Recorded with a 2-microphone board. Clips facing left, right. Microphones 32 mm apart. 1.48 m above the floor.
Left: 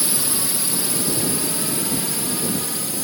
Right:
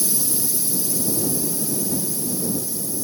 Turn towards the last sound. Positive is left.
turn(degrees=70)  # may be behind; listen again after turning